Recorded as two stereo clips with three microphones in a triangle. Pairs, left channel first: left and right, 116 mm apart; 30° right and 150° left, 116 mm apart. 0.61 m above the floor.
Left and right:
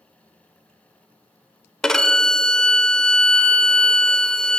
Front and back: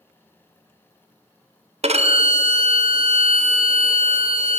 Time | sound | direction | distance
1.8 | a violin | 175° left | 0.6 m